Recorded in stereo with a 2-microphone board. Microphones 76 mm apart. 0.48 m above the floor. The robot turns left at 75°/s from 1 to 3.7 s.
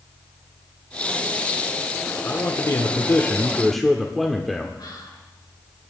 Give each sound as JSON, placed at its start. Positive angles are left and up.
{"t": 2.2, "sound": "a man speaking", "azimuth_deg": 115, "distance_m": 0.9}
{"t": 4.8, "sound": "whispering", "side_deg": 65, "distance_m": 4.5}